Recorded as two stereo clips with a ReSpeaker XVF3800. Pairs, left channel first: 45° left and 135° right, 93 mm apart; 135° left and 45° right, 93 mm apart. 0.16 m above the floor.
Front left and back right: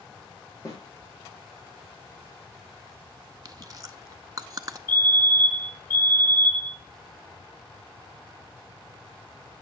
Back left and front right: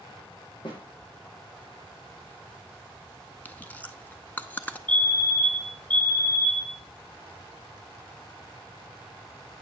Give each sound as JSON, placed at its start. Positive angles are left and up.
{"t": 0.7, "sound": "a snare drum", "azimuth_deg": 100, "distance_m": 5.5}
{"t": 3.5, "sound": "chewing", "azimuth_deg": -160, "distance_m": 0.6}
{"t": 4.9, "sound": "a fire alarm", "azimuth_deg": -5, "distance_m": 5.0}